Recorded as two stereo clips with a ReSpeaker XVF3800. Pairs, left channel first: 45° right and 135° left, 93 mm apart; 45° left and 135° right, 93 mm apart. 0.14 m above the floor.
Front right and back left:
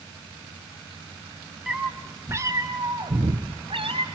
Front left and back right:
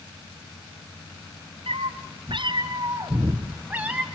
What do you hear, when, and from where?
1.7 s a cat meowing: 140° right, 2.5 m; by 4.0 s 145° left, 3.5 m